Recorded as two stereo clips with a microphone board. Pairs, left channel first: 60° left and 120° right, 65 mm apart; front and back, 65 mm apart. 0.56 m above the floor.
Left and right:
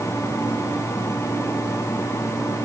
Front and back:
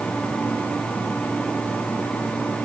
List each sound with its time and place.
Only background noise.